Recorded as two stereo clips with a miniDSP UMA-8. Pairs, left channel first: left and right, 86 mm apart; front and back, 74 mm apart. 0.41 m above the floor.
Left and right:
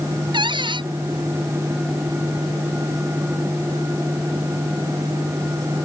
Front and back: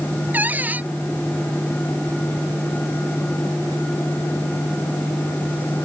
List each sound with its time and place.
0.3 s a cupboard door: 110° right